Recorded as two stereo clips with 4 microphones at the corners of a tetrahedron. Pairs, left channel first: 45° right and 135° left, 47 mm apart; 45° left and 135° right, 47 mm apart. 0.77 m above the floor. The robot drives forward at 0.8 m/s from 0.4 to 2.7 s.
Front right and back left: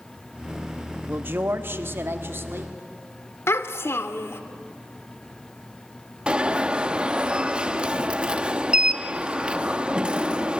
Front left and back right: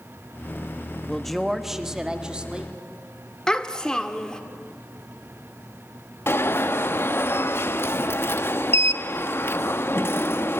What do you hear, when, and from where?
1.1 s a man speaking: 125° left, 1.0 m; by 2.7 s 160° left, 2.0 m
3.5 s a child speaking: 30° right, 1.5 m
6.3 s an alarm: 70° left, 0.8 m